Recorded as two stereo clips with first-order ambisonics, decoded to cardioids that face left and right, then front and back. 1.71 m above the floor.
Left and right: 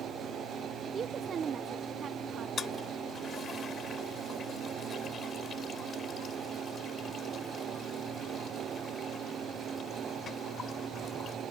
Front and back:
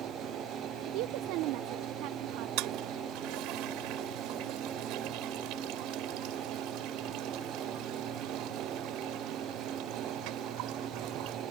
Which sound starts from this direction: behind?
A woman speaking, at 0.8 s.